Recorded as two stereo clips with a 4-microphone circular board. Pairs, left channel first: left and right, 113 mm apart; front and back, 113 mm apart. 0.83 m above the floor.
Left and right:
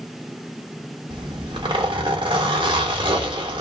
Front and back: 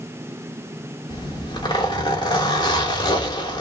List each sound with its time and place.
1.1 s a zipper: 45° right, 1.1 m